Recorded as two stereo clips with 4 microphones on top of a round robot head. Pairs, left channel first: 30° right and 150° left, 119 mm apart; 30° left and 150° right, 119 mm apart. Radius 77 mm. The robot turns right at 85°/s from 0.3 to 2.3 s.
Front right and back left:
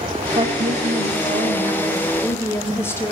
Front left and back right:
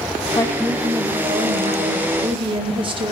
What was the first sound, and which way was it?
A woman speaking, 90° left.